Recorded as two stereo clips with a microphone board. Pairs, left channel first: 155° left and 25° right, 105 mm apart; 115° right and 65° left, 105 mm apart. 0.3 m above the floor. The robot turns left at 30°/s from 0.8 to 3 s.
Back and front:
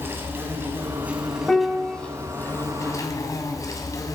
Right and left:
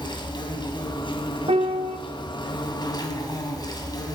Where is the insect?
85° right, 2.5 m; by 4.1 s 150° right, 2.5 m.